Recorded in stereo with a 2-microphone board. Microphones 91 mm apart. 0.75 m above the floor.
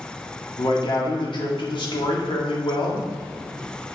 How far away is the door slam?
I don't hear a door slam.